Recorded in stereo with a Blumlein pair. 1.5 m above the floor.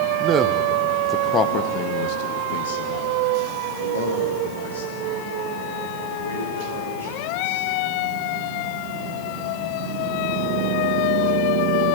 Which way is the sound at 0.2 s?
30° right.